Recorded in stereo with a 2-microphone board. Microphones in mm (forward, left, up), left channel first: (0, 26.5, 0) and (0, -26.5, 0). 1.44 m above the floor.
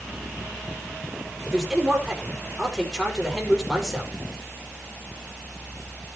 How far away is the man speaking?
About 5.5 m.